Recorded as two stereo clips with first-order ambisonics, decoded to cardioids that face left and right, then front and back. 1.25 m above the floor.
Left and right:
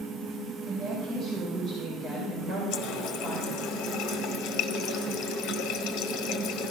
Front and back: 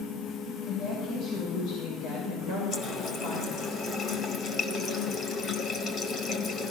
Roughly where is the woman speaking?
Ahead.